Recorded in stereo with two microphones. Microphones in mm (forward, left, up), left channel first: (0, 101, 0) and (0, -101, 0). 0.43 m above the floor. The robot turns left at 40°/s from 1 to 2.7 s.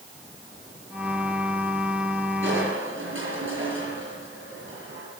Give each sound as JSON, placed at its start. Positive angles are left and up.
{"t": 2.4, "sound": "crushing", "side_deg": -70, "distance_m": 6.0}